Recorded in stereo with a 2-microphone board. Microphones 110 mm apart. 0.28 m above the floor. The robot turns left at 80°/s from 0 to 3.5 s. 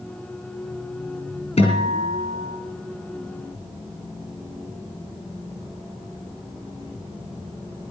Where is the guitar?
115° left, 4 m; by 2.6 s 35° left, 4 m.